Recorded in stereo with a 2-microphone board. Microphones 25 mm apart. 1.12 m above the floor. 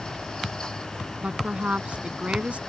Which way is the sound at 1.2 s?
60° right (ahead or behind).